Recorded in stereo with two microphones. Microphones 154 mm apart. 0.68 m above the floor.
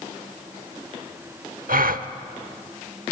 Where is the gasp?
75° right (ahead or behind), 0.9 m.